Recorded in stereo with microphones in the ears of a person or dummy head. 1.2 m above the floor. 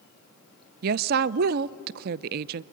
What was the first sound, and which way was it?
A woman speaking, 55° right (ahead or behind).